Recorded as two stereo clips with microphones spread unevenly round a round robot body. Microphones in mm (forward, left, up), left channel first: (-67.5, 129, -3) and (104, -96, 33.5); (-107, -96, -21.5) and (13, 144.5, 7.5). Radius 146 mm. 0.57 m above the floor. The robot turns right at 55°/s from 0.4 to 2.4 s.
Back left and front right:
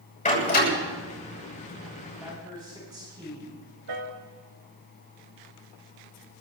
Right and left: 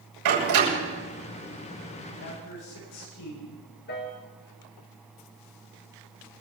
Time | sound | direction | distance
0.2 | a door slam | 60° left | 9.5 m
2.2 | a man speaking | 140° right | 9 m
3.9 | a piano | 55° right | 2 m